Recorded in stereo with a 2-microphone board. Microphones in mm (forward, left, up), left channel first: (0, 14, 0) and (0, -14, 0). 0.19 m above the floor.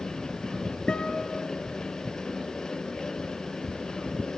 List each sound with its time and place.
0.9 s a guitar: 30° left (ahead or behind), 1.0 m